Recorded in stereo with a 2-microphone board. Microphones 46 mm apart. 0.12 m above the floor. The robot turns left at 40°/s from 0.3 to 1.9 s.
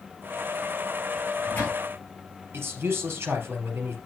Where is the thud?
No thud in this recording.